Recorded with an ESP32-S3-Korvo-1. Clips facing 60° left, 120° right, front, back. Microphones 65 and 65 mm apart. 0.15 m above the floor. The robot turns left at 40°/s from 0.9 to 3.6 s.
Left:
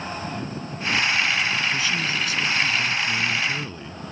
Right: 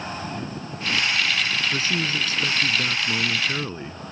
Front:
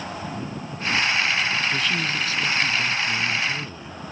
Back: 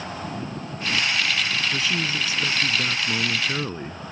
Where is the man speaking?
95° right; by 4.1 s 170° right.